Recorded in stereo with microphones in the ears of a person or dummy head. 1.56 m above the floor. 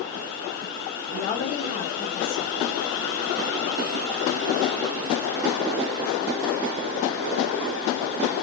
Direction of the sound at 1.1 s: 30° left (ahead or behind).